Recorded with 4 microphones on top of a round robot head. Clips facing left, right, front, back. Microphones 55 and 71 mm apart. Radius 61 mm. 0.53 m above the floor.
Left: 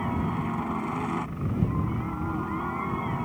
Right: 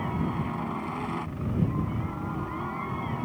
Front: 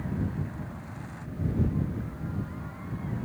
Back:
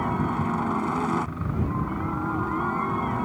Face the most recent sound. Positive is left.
turn(degrees=170)